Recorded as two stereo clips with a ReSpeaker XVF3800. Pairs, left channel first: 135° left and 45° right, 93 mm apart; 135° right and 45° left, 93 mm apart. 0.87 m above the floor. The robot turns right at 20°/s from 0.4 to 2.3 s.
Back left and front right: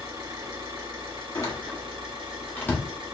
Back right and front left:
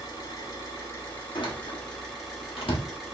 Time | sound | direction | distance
0.0 | an engine running | 85° right | 1.9 m
1.4 | a door slam | 175° right | 1.1 m